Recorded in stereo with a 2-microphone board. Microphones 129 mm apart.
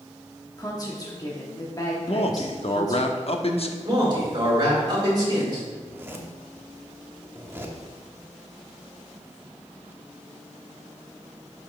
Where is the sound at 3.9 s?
35° right (ahead or behind), 3 m.